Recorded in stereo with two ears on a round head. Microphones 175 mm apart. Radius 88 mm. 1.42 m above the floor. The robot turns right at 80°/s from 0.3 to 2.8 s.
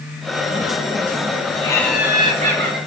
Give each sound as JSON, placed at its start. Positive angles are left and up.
{"t": 1.6, "sound": "laughter", "azimuth_deg": 155, "distance_m": 4.0}